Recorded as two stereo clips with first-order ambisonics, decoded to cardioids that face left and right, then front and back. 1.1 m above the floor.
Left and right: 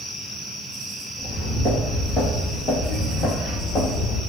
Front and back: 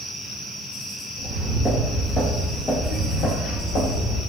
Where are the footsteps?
90° left, 1.1 m; by 4.2 s 40° left, 2 m.